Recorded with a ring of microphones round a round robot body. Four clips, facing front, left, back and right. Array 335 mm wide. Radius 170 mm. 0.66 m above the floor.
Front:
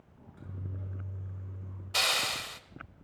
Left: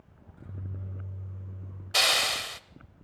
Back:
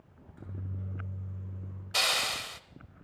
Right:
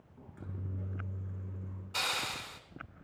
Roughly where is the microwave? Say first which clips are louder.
Even, back 1 dB; right.